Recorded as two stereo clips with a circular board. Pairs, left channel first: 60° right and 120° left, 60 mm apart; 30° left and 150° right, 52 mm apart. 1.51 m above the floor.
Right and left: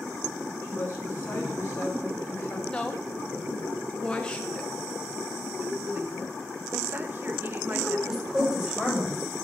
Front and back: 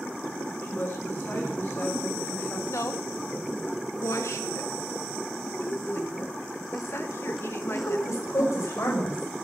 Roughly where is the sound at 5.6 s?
Ahead left.